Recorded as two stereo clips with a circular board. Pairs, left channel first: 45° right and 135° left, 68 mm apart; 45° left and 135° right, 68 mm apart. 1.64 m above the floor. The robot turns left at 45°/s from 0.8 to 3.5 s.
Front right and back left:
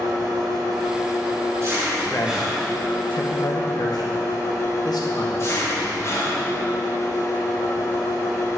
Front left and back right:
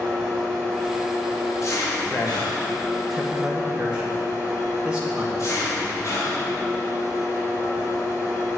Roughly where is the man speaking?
Ahead.